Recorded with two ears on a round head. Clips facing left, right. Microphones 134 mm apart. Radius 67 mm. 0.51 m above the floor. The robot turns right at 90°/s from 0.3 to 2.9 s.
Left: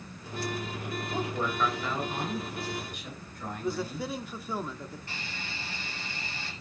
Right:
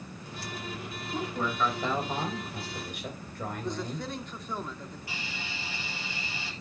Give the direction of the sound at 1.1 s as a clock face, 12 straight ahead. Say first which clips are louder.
Even; 7 o'clock.